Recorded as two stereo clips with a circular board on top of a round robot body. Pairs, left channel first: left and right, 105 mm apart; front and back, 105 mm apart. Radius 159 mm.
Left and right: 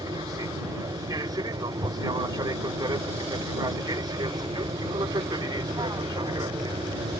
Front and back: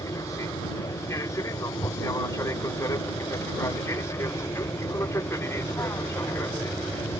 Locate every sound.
0.0 s an aircraft: 50° right; by 7.2 s 60° right